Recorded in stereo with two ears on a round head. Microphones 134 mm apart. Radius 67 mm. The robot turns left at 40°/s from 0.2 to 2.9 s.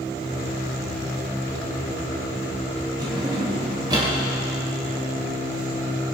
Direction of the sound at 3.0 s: 30° right (ahead or behind).